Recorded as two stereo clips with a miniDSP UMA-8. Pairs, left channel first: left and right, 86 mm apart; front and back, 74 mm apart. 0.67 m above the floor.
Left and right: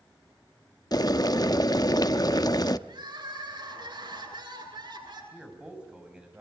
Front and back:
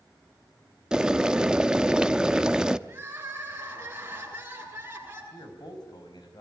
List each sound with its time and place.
0.9 s boiling: 105° left, 0.7 m
2.9 s crying: 115° right, 8 m
5.3 s a man speaking: 15° right, 5.5 m